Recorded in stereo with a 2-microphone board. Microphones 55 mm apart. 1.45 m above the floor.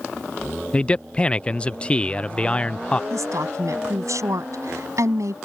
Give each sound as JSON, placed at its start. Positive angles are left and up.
{"t": 0.7, "sound": "a man speaking", "side_deg": 25}
{"t": 3.1, "sound": "a woman speaking", "side_deg": -80}